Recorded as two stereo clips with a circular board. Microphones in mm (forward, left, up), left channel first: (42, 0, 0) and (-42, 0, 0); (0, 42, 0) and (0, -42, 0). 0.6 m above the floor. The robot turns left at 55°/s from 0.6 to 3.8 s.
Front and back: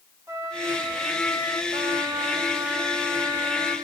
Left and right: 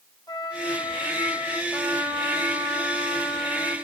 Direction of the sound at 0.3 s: 130° left.